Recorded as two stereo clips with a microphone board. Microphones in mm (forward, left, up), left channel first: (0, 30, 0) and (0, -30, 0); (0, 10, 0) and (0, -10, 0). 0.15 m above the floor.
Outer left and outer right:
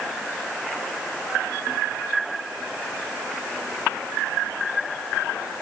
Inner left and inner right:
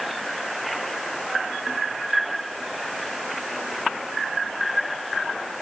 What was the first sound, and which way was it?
Only background noise.